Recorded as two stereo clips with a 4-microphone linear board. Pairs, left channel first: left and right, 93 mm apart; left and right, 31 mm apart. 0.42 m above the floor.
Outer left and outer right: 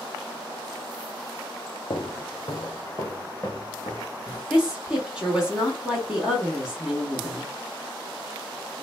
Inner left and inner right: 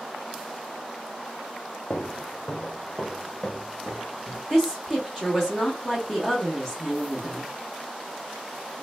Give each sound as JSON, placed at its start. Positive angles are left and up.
{"t": 1.9, "sound": "footsteps", "side_deg": 55, "distance_m": 0.8}
{"t": 4.5, "sound": "a woman speaking", "side_deg": -10, "distance_m": 1.1}